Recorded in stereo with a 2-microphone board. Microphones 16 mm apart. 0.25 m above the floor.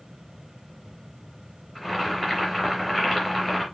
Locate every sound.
1.8 s boiling: 10° left (ahead or behind), 3.5 m